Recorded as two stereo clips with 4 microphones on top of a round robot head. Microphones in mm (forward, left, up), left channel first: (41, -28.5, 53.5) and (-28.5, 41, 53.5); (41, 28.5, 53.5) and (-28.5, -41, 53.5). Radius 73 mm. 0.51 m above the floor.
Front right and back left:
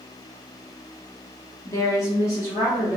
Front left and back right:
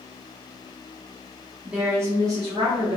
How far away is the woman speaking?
About 0.7 m.